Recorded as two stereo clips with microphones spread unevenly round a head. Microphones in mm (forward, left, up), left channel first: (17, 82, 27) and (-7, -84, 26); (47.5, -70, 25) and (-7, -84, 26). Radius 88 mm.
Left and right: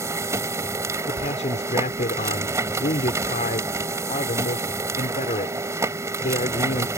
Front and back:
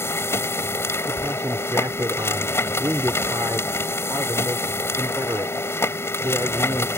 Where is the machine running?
25° right.